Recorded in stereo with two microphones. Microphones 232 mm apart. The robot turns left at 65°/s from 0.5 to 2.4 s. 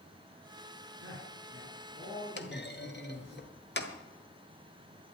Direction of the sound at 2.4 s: 50° left (ahead or behind).